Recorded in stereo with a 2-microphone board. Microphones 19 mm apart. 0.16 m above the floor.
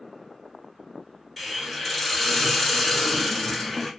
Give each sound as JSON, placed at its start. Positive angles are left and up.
{"t": 1.4, "sound": "a hiss", "side_deg": -10, "distance_m": 1.8}